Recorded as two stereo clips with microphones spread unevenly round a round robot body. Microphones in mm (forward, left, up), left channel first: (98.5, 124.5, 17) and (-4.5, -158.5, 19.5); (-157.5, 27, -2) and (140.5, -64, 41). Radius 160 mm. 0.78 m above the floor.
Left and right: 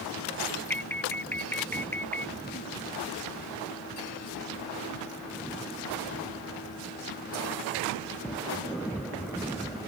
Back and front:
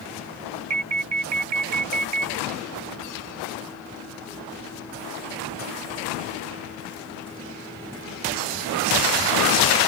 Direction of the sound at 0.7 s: 15° right.